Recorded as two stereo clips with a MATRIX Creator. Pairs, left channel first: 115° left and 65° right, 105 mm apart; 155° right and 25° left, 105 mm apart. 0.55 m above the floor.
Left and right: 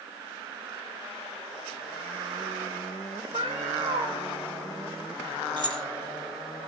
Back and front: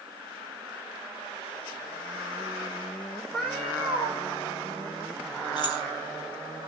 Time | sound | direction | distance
3.3 | a cat meowing | 70° right | 5 m
5.6 | keys jangling | 115° right | 1.9 m